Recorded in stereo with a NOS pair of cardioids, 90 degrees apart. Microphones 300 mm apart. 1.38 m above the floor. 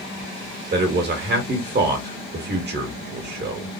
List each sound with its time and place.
0.7 s a man speaking: 40° right, 1.5 m